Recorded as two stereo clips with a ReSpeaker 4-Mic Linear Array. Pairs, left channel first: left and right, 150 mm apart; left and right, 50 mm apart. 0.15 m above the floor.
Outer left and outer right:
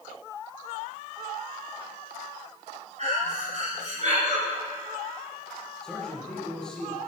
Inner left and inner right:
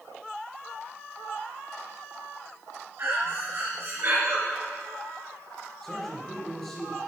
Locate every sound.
3.0 s breathing: 50° right (ahead or behind), 2.5 m
5.8 s a man speaking: 5° left (ahead or behind), 3.5 m